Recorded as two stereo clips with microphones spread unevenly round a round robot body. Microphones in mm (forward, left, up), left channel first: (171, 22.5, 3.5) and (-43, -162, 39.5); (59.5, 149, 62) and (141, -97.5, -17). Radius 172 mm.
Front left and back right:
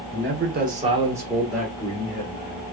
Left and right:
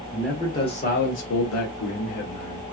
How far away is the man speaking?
About 0.8 m.